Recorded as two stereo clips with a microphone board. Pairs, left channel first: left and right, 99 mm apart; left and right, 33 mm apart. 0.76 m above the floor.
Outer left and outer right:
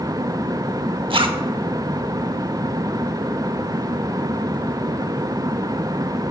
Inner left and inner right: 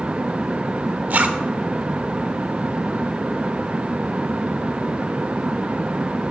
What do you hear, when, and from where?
1.1 s a zipper: 60° right (ahead or behind), 0.7 m